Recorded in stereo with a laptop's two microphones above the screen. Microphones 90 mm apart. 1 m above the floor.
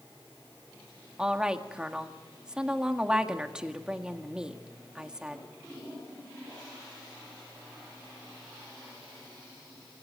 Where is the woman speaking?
10° right (ahead or behind), 1.8 m.